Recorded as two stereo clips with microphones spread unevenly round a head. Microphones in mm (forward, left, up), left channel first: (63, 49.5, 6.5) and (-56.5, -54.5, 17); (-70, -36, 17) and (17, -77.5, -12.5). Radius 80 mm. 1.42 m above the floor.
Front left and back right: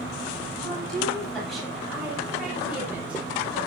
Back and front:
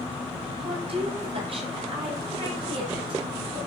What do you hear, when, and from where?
0.5 s a woman speaking: 40° right, 8.5 m; by 3.6 s 60° right, 10.5 m